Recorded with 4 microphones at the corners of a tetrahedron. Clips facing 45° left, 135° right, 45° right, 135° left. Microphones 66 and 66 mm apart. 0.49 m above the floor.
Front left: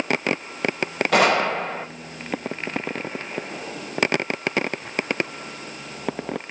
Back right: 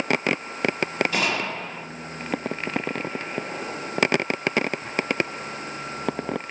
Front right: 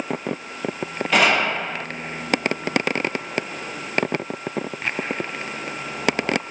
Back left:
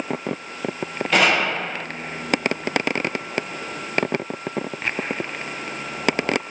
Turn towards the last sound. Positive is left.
turn(degrees=45)